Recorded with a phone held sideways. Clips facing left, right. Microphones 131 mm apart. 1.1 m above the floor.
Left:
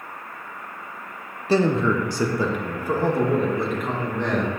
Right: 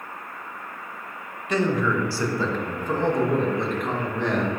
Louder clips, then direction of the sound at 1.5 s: Left 3 dB; 30° left (ahead or behind).